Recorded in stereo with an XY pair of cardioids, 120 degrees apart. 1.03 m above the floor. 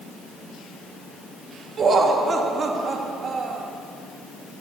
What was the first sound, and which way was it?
Laughter, 40° right.